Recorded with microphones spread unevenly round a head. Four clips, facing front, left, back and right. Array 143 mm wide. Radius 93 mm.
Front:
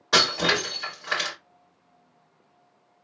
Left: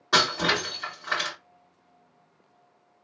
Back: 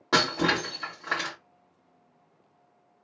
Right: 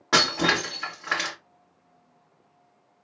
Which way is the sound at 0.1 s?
165° right.